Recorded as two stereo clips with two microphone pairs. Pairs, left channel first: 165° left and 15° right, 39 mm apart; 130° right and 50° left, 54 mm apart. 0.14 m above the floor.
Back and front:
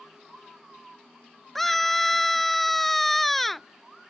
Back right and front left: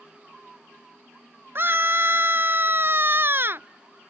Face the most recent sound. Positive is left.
turn(degrees=75)